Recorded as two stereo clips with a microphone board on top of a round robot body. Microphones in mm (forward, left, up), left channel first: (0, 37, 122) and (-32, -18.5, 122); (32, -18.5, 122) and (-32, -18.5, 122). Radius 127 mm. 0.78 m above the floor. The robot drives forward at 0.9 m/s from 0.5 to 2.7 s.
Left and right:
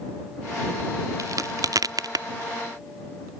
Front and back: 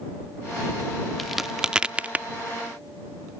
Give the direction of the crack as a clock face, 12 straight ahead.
3 o'clock.